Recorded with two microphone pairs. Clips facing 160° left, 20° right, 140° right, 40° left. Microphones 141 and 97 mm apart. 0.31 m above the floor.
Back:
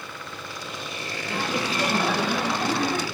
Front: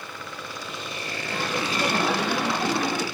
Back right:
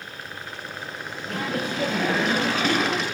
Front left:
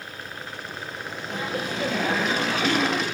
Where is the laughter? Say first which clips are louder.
Back 1 dB, back right 2 dB; 130° right, 6.5 m; by 3.0 s 105° right, 5 m.